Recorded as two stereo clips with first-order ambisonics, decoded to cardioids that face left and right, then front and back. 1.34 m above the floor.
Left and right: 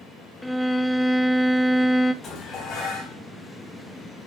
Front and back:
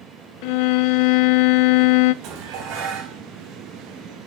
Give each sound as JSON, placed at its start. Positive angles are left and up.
{"t": 0.4, "sound": "a violin", "azimuth_deg": 0, "distance_m": 0.7}
{"t": 2.2, "sound": "dishes clattering", "azimuth_deg": 150, "distance_m": 5.0}